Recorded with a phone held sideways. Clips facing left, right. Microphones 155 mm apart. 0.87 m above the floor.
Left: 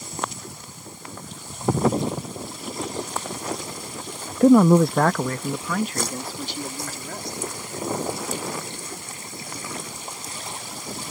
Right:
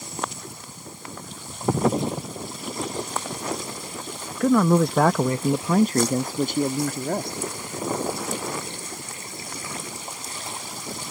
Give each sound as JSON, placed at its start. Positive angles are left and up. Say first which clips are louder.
{"t": 4.4, "sound": "a man speaking", "louder": "left 5 dB", "side_deg": 30}